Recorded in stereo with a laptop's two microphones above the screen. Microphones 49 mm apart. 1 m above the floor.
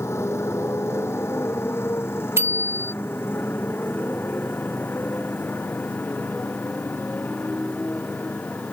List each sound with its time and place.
0.0 s a motorcycle: 75° left (ahead or behind); by 8.7 s 35° left (ahead or behind)
2.4 s a bicycle bell: 80° right